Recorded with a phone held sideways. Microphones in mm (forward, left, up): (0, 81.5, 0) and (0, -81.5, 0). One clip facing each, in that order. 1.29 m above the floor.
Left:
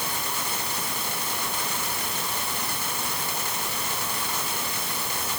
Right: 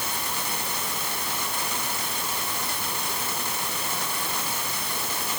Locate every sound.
Only background noise.